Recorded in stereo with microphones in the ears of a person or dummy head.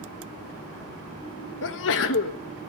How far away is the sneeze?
About 1.2 m.